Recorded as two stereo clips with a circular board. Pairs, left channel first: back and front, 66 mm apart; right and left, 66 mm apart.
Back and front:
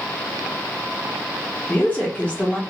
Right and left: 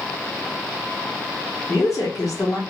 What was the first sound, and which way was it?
A woman speaking, 115° right.